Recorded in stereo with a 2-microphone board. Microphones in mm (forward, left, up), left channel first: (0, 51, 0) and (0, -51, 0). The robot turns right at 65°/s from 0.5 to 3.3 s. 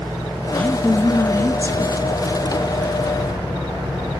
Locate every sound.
0.5 s a woman speaking: 5° left (ahead or behind), 1.1 m; by 2.1 s 20° left (ahead or behind), 1.1 m